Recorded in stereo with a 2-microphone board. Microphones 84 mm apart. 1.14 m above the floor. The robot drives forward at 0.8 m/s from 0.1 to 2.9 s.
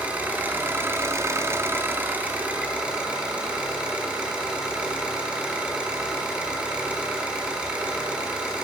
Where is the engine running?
15° right (ahead or behind), 1.2 m.